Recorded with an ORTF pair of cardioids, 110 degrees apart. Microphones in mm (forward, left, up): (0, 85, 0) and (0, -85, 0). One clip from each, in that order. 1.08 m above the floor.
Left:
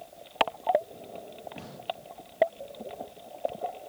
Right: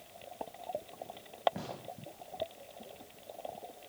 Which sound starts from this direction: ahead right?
A gunshot, at 1.6 s.